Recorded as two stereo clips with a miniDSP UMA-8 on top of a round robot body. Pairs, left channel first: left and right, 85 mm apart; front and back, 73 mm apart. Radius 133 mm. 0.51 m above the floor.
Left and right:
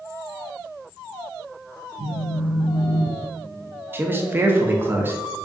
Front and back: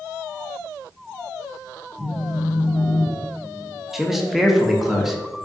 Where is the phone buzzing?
110° right, 0.8 m.